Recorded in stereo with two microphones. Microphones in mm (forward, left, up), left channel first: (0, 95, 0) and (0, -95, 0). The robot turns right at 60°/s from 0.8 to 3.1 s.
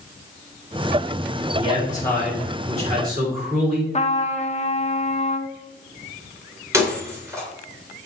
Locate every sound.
1.5 s a man speaking: 135° left, 3 m; by 3.8 s 130° right, 3 m
3.9 s a trumpet: 35° left (ahead or behind), 0.6 m
6.7 s breaking glass: 15° right (ahead or behind), 2 m